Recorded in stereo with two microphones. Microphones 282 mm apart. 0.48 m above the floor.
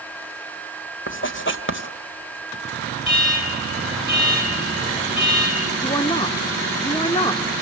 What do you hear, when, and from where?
1.1 s writing: 45° left (ahead or behind), 1.9 m
3.0 s an alarm: 50° left (ahead or behind), 6.5 m
5.8 s a woman speaking: 15° left (ahead or behind), 0.8 m